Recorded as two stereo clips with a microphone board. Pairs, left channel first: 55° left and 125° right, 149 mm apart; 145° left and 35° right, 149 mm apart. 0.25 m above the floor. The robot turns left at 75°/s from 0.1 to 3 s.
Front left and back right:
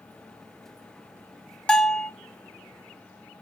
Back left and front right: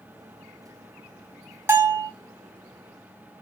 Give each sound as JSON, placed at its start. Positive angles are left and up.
{"t": 1.7, "sound": "a bell", "azimuth_deg": -15, "distance_m": 0.6}